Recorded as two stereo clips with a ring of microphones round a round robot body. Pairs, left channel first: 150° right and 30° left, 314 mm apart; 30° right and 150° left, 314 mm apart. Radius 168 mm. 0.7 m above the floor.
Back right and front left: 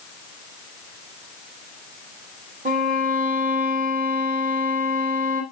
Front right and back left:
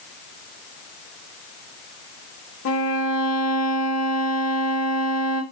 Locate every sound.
2.6 s a violin: 20° right, 1.3 m